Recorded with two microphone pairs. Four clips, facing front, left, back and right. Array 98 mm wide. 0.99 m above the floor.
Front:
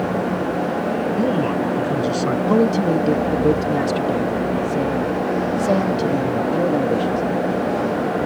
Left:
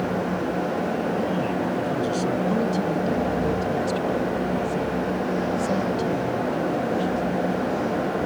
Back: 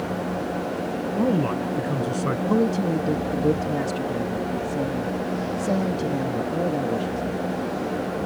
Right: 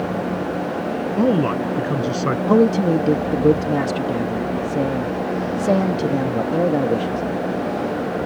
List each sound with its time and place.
1.2 s a man speaking: 90° right
2.5 s a man speaking: 65° right